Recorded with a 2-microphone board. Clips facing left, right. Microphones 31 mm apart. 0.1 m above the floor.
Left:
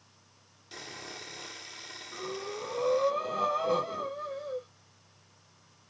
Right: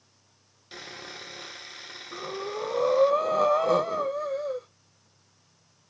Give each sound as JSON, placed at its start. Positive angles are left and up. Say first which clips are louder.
{"t": 0.7, "sound": "sawing", "louder": "right 2 dB", "side_deg": -25, "distance_m": 1.7}
{"t": 2.1, "sound": "breathing", "louder": "right 4 dB", "side_deg": -75, "distance_m": 1.7}